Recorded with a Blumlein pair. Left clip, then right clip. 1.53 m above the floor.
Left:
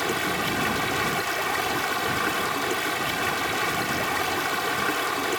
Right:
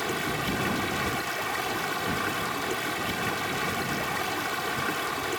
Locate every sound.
0.0 s running water: 15° left